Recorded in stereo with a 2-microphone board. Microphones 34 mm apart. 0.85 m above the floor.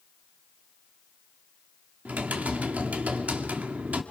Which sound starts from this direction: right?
Typing on a keyboard, at 2.0 s.